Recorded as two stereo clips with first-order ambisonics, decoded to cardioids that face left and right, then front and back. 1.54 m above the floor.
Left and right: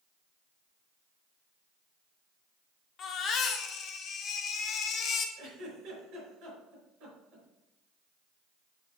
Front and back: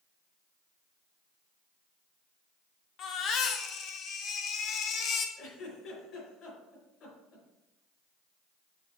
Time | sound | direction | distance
3.0 | a baby crying | 40° left | 0.9 m
5.4 | a giggle | 55° right | 4 m